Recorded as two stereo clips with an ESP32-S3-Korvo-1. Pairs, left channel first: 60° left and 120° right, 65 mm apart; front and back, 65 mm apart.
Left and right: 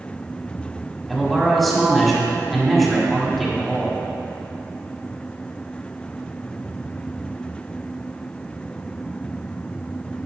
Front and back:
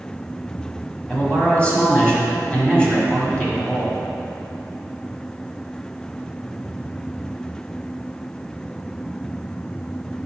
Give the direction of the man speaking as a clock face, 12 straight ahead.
1 o'clock.